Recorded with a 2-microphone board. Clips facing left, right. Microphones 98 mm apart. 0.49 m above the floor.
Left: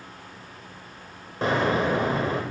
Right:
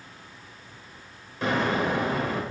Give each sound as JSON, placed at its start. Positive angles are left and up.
{"t": 1.4, "sound": "an explosion", "side_deg": 35, "distance_m": 0.9}